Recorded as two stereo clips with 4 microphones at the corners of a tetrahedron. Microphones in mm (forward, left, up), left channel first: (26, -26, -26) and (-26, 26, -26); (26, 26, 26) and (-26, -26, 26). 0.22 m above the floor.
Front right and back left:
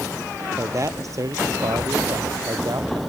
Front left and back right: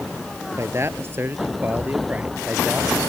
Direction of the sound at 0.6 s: 175° left.